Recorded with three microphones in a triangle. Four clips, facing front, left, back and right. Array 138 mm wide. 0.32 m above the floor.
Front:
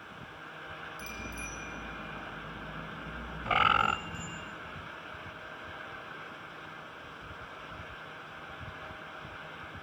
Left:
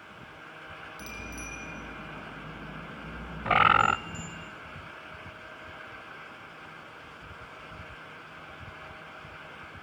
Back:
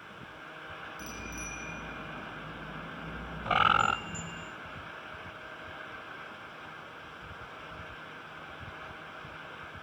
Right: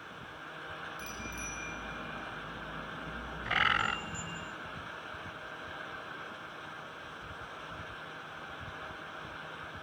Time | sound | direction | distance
1.0 | a bicycle bell | 135° left | 9 m
3.5 | a bird | 100° left | 0.5 m